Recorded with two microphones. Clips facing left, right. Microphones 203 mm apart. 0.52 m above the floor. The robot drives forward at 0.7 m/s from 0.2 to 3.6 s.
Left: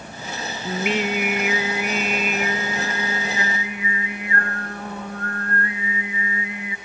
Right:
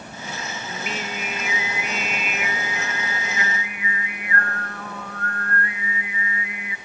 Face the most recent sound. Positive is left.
turn(degrees=25)  # may be behind; listen again after turning